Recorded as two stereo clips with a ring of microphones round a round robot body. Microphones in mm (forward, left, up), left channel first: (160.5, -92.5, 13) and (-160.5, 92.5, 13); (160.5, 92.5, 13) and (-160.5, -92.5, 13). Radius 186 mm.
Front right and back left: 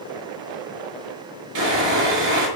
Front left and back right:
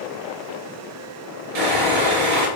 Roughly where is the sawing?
Behind.